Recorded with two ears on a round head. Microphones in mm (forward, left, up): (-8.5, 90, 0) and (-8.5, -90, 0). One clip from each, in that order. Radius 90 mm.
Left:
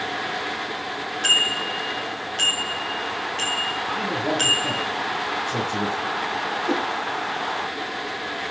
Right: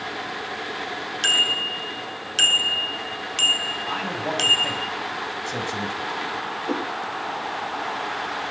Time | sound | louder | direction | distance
1.2 | a bicycle bell | even | 70° right (ahead or behind) | 7.5 m
3.9 | a man speaking | left 2 dB | 80° right | 6.5 m
6.7 | a whoosh | left 2 dB | 10° left (ahead or behind) | 5.5 m